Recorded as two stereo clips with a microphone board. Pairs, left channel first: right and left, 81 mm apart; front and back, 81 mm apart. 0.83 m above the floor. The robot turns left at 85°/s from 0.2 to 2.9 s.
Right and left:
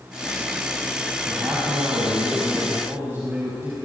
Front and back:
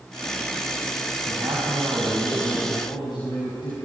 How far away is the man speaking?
About 6 m.